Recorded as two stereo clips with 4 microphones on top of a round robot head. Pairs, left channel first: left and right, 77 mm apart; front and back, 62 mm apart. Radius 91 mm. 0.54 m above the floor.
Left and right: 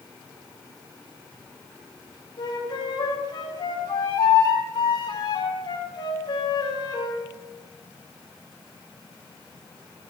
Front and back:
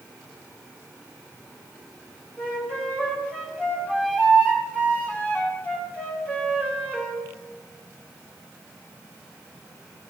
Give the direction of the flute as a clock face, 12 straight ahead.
10 o'clock.